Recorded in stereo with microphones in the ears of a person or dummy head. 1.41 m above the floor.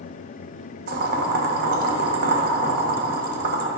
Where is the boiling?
60° right (ahead or behind), 1.3 m.